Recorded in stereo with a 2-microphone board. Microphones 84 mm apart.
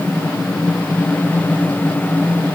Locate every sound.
Only background noise.